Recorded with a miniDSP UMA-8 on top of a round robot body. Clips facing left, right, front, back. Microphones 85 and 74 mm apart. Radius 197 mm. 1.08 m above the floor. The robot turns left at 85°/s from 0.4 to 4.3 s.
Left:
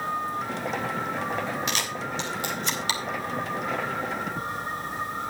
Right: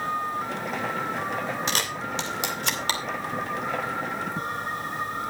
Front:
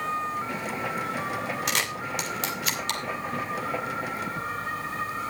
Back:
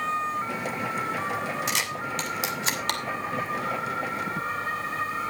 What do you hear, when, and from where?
1.7 s a camera shutter: 30° right, 3 m; by 3.0 s 145° right, 3 m